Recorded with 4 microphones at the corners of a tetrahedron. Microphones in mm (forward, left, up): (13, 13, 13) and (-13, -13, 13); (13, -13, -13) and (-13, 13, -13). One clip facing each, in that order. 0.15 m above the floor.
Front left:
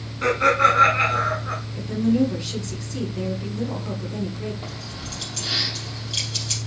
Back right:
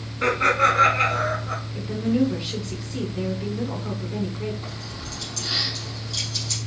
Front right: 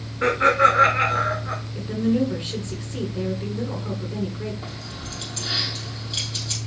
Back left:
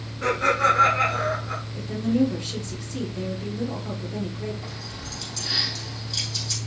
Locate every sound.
0.2 s laughter: 65° right, 1.2 m; by 1.6 s 10° left, 1.6 m
1.8 s a woman speaking: 65° right, 2.0 m
4.6 s keys jangling: 5° left, 4 m